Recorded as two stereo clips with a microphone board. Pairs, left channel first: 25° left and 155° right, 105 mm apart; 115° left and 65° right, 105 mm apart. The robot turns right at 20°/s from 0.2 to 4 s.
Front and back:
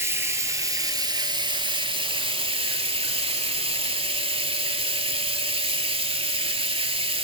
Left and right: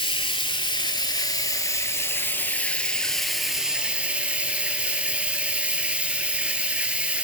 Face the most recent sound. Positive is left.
turn(degrees=-145)